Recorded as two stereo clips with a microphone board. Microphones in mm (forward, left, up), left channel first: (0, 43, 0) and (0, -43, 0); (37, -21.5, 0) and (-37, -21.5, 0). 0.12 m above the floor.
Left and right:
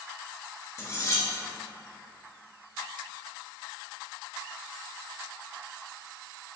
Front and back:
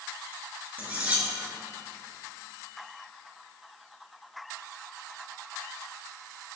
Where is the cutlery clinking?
120° left, 0.8 m.